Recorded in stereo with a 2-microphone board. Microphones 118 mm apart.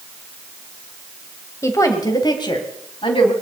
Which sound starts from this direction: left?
A woman speaking, at 1.6 s.